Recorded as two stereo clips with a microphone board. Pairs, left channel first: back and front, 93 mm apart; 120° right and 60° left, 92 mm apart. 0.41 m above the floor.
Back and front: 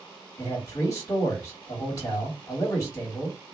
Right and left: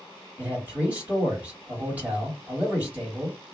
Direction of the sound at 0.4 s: 130° left.